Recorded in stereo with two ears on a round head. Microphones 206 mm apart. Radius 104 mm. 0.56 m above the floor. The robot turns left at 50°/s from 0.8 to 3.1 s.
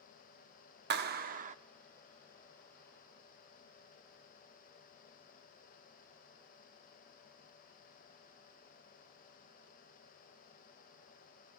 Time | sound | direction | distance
0.9 | a clap | 105° right | 0.8 m